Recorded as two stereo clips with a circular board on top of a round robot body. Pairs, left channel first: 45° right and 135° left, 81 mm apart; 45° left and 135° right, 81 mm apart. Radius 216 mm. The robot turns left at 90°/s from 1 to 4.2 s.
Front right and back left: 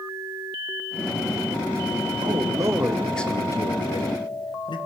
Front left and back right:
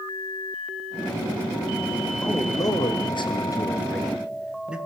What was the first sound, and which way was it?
A man speaking, 120° left.